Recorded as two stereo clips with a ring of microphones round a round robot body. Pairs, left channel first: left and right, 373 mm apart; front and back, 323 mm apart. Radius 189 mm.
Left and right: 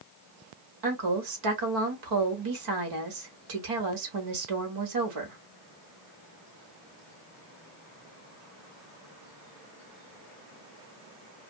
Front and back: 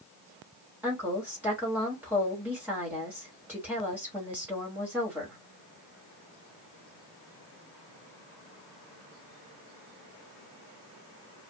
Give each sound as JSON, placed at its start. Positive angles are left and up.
{"t": 0.8, "sound": "a woman speaking", "azimuth_deg": -95, "distance_m": 1.5}